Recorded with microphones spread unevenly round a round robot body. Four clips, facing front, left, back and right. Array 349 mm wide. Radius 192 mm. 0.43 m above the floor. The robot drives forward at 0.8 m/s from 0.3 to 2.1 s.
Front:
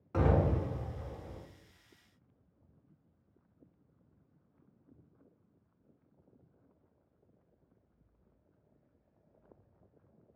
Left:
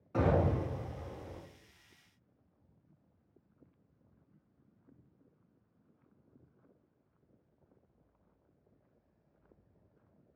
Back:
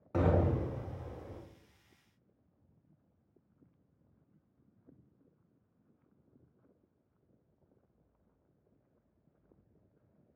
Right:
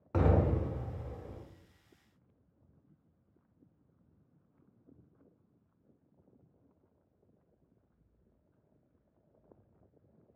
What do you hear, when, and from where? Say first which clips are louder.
0.1 s an explosion: even, even; 105° right, 1.0 m; by 1.4 s 150° right, 1.4 m